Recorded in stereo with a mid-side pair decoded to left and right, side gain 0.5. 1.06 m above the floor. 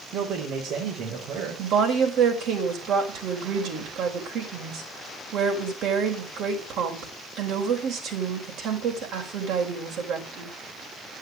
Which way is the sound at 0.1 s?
65° right.